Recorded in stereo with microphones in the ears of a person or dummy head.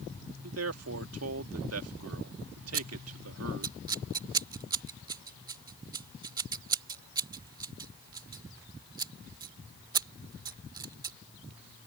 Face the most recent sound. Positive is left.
turn(degrees=-25)  # may be behind; listen again after turning